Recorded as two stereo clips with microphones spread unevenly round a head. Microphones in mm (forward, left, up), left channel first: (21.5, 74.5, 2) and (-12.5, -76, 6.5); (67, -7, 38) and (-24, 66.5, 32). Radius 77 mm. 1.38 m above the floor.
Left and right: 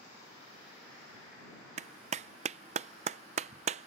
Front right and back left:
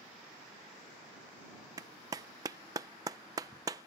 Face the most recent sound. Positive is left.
turn(degrees=-150)